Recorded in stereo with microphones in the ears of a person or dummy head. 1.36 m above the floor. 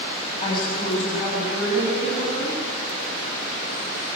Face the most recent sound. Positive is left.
turn(degrees=45)  # may be behind; listen again after turning